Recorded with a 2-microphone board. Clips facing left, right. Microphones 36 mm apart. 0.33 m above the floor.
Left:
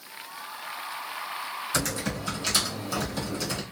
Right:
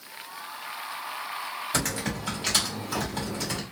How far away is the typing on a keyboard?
About 1.9 m.